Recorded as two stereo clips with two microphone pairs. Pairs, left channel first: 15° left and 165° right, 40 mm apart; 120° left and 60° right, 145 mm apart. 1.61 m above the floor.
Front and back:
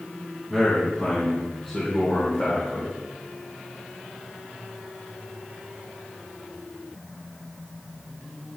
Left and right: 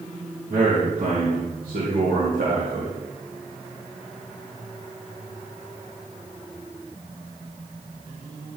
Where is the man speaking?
70° right, 2.5 m; by 3.0 s 35° right, 1.9 m.